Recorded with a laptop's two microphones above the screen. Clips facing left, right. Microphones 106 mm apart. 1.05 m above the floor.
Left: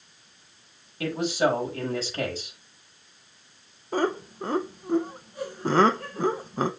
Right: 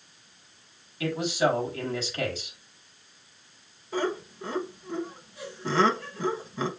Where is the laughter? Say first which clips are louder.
Left 3 dB; 45° left (ahead or behind), 0.7 m.